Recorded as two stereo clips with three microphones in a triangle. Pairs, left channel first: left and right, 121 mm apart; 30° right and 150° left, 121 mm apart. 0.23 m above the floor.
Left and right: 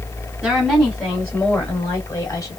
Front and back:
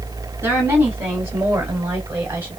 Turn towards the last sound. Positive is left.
turn(degrees=90)